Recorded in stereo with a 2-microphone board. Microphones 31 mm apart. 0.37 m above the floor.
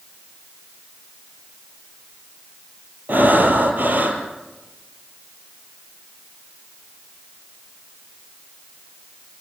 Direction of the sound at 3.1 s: 75° right (ahead or behind).